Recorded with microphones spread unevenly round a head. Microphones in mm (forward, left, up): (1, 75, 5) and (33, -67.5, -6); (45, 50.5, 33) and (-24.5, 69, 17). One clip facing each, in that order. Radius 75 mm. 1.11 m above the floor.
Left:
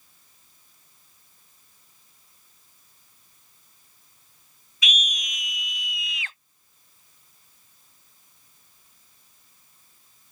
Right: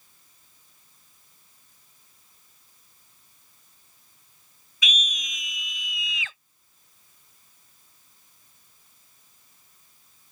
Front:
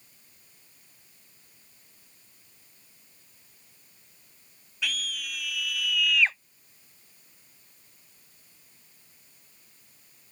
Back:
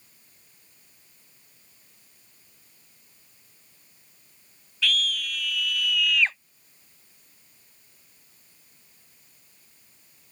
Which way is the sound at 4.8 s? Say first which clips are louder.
Left 1 dB, back 6 dB; 95° right.